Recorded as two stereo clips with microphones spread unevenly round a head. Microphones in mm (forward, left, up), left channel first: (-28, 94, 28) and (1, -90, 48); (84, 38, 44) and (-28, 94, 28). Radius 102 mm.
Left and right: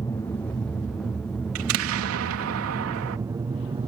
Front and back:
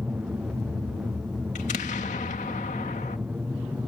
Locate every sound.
0.0 s an aircraft: 110° left; by 3.9 s 135° right
1.6 s an explosion: 75° right